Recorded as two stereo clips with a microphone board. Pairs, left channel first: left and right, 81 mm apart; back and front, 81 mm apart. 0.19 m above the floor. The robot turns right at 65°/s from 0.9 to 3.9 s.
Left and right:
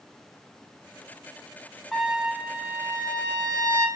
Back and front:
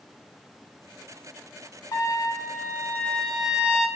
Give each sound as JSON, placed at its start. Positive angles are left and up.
{"t": 1.9, "sound": "a trumpet", "azimuth_deg": 175, "distance_m": 0.5}